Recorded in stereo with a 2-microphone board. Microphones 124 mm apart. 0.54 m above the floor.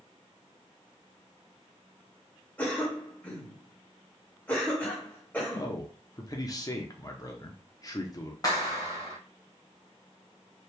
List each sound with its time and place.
2.6 s a cough: 15° left (ahead or behind), 2 m
5.5 s a man speaking: 30° left (ahead or behind), 0.8 m
8.4 s a clap: 35° left (ahead or behind), 1.9 m